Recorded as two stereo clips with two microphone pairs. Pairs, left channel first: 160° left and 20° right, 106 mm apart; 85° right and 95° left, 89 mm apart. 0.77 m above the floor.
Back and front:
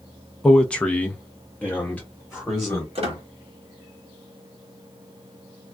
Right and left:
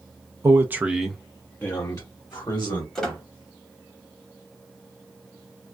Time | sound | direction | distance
0.4 | a man speaking | 80° left | 0.6 m
3.0 | a squeak | 5° right | 1.2 m